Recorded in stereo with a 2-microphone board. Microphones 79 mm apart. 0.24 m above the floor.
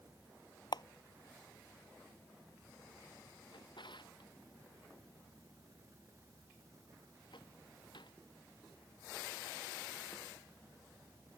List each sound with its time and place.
0.7 s a camera shutter: 65° left (ahead or behind)
3.5 s a drawer: 75° left (ahead or behind)